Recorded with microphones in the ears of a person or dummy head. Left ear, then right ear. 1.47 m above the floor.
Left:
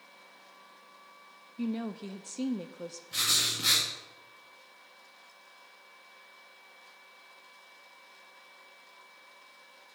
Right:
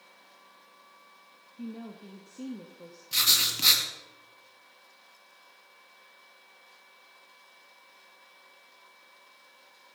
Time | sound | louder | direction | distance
1.6 | a woman speaking | left 7 dB | 70° left (ahead or behind) | 0.6 m
3.1 | writing | right 4 dB | 35° right (ahead or behind) | 1.8 m